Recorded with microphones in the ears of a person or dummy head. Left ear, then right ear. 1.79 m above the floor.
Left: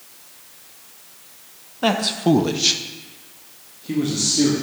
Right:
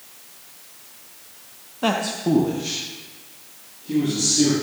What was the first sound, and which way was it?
A man speaking, 10° left (ahead or behind).